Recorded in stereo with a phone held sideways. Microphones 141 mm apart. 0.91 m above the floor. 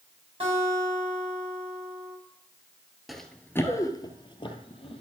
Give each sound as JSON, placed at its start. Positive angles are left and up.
{"t": 0.4, "sound": "a guitar", "side_deg": -45, "distance_m": 3.5}
{"t": 3.1, "sound": "running footsteps", "side_deg": 0, "distance_m": 0.9}